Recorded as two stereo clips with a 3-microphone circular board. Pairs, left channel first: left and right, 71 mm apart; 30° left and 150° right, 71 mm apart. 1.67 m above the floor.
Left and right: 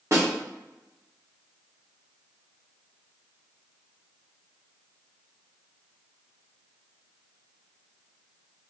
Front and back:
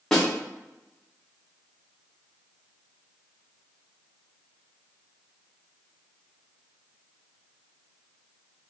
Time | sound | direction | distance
0.1 | a snare drum | 55° right | 0.9 m